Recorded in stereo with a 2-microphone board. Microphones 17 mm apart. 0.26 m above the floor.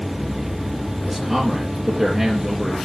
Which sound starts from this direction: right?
A man speaking, at 1.1 s.